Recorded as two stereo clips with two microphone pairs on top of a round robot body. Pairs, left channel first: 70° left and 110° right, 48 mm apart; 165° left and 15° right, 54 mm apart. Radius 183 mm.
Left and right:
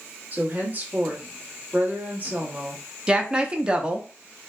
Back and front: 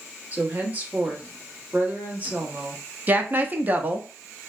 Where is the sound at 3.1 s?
35° right, 0.8 m.